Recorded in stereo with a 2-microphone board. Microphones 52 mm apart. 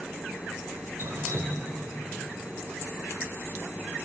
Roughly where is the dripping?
Right.